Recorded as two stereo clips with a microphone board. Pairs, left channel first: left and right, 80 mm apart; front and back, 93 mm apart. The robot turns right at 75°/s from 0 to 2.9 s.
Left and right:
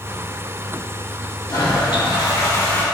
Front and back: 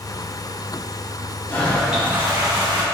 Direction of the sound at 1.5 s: 65° left.